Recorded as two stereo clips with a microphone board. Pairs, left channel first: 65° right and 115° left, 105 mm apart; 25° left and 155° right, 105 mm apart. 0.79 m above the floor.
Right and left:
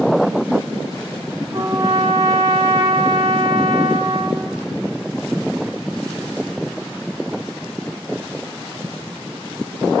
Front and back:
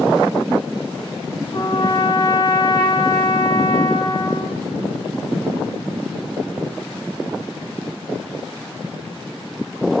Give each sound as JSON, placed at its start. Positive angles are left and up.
{"t": 1.5, "sound": "a trumpet", "azimuth_deg": 70, "distance_m": 0.7}